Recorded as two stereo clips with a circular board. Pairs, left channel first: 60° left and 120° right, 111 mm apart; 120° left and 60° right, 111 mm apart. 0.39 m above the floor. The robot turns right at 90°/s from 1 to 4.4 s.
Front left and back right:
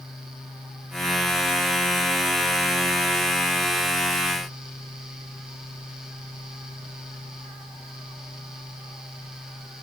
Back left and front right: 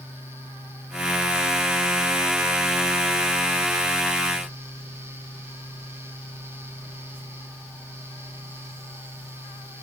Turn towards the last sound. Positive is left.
No sound to turn to.